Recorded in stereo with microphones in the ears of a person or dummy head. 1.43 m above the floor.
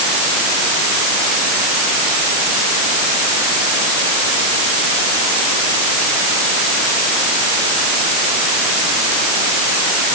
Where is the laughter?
No laughter in this recording.